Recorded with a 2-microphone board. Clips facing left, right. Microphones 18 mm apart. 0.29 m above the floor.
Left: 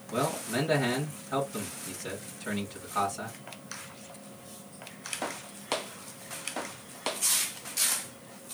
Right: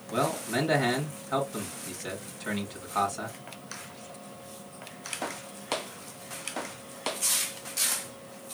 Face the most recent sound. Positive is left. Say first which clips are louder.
# right 2 dB
turn(degrees=-30)  # may be behind; listen again after turning